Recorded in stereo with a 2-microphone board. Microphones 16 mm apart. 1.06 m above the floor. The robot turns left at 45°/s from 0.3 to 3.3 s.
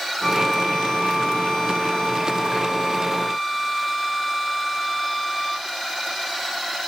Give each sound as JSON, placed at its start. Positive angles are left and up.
{"t": 0.2, "sound": "a violin", "azimuth_deg": 140, "distance_m": 1.4}